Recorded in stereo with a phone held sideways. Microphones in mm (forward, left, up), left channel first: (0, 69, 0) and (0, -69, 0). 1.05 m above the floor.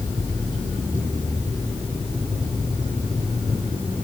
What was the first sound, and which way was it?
Only background noise.